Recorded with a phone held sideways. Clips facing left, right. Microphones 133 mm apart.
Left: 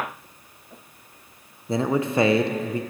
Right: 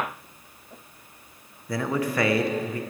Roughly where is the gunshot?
I don't hear a gunshot.